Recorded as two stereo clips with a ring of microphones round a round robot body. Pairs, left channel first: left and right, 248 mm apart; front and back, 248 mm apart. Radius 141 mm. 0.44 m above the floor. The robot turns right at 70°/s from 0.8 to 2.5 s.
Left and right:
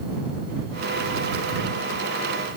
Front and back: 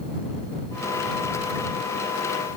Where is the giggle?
I don't hear a giggle.